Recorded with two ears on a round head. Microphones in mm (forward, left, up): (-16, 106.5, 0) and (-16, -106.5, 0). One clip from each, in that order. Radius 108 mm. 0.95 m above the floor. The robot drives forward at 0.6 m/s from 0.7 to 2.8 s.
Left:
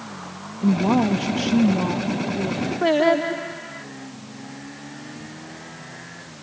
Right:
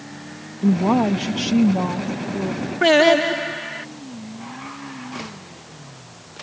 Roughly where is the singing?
Right.